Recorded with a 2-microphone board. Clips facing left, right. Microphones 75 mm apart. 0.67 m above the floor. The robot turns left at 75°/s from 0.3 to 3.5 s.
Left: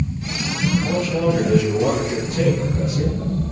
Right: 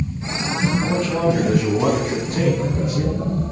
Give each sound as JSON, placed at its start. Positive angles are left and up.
{"t": 0.8, "sound": "a man speaking", "azimuth_deg": -20, "distance_m": 5.5}